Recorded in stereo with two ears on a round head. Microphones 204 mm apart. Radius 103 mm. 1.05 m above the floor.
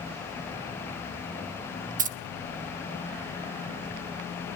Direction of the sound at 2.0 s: 35° right (ahead or behind).